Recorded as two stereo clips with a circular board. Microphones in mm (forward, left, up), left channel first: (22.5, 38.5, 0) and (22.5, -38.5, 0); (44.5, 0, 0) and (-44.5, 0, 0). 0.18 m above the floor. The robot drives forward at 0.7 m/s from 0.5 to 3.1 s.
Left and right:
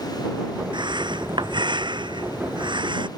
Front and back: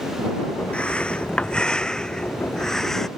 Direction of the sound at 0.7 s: 80° right.